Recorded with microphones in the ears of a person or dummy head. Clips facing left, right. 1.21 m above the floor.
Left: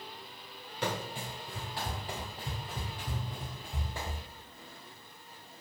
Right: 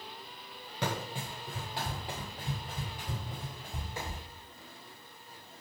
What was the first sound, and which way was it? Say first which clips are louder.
Running footsteps: even; 35° right (ahead or behind).